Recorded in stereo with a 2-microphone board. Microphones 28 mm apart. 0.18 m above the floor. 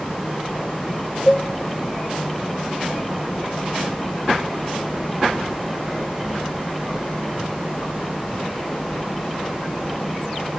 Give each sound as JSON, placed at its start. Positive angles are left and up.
{"t": 1.3, "sound": "a cowbell", "side_deg": 10, "distance_m": 0.6}